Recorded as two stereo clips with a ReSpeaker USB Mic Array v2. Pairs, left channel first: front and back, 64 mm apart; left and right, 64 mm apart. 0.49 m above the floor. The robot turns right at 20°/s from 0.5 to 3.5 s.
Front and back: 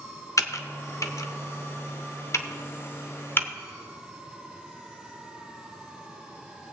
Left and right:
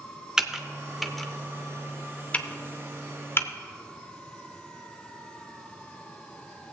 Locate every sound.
0.4 s typing on a keyboard: 10° right, 0.6 m; by 3.5 s 50° left, 0.6 m